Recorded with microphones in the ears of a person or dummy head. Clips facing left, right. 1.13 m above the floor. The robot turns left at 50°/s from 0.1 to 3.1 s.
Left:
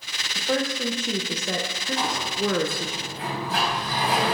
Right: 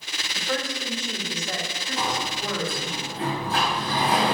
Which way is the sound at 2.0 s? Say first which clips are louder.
Left 1 dB; 85° right.